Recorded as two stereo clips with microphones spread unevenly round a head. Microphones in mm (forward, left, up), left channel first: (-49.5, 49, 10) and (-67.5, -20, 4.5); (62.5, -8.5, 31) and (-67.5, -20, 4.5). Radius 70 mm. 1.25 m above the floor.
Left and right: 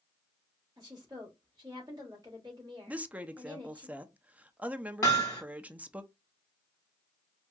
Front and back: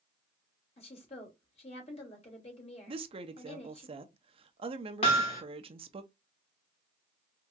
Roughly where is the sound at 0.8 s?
Ahead right.